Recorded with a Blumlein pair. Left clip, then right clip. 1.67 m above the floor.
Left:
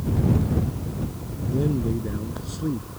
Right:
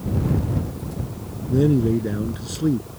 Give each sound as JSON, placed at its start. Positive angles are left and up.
{"t": 1.5, "sound": "a man speaking", "azimuth_deg": -70}